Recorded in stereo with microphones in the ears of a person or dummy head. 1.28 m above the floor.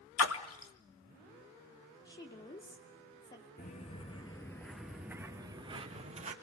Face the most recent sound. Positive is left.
turn(degrees=-35)  # may be behind; listen again after turning